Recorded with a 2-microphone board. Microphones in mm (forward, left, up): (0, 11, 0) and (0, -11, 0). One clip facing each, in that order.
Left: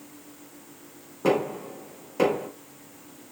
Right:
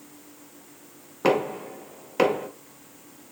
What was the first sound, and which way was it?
Knocking, 40° right (ahead or behind).